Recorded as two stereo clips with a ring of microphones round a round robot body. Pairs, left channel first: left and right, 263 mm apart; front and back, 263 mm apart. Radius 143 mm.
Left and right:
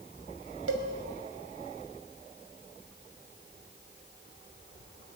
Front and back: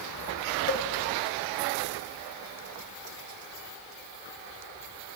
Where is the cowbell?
45° right, 2.5 m.